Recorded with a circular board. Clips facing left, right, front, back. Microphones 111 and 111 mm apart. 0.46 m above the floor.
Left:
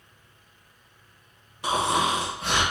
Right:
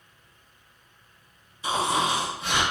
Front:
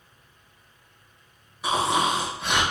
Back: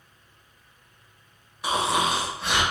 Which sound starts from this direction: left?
Snoring, at 1.6 s.